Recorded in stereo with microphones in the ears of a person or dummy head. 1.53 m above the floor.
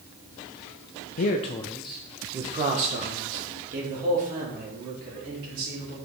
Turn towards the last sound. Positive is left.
turn(degrees=-55)  # may be behind; listen again after turning